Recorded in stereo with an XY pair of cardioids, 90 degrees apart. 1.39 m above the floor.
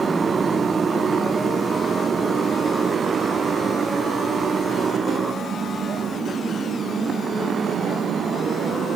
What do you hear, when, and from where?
0.0 s a motorcycle: 40° right; by 9.0 s 60° right